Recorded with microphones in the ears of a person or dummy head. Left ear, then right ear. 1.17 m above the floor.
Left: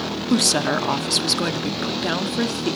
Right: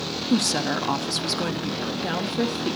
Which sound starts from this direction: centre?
A woman speaking, at 0.3 s.